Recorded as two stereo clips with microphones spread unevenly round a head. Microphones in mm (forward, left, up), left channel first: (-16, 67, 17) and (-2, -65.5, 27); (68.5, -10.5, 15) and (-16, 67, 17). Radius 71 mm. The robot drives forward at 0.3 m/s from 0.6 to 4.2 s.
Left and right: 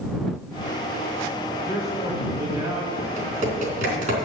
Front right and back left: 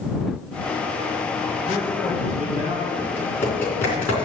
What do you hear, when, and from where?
1.6 s a man speaking: 150° right, 4 m
3.0 s typing on a keyboard: 115° right, 3.5 m; by 4.2 s 120° right, 3.5 m